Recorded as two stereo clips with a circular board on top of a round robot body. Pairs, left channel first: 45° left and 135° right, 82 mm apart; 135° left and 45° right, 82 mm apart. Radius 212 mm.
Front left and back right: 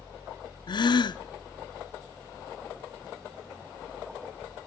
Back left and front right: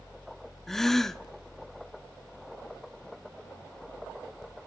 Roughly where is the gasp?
Ahead left.